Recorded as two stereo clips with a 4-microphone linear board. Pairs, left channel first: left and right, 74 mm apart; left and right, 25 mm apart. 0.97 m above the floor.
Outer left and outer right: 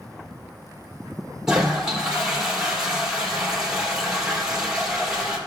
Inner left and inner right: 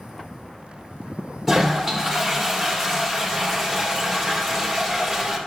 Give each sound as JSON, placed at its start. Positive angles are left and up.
{"t": 1.5, "sound": "a toilet flushing", "side_deg": -5, "distance_m": 2.5}